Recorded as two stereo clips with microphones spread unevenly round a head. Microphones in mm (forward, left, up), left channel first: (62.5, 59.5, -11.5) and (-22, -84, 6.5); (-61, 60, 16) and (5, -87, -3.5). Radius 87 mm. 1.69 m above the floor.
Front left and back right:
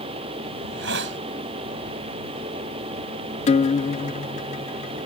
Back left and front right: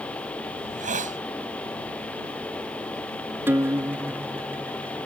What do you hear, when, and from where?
0.6 s a hiss: 110° right
3.5 s a guitar: 15° left